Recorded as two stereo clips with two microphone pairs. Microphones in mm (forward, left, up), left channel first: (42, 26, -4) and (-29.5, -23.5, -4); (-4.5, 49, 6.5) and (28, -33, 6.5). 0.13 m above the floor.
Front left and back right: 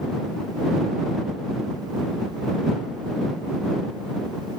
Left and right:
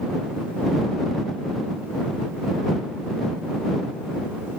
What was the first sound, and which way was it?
Only background noise.